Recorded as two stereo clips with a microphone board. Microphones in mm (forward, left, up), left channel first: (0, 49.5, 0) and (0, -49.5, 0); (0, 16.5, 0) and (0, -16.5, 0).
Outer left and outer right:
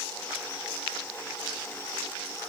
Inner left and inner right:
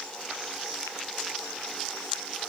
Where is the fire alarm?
No fire alarm in this recording.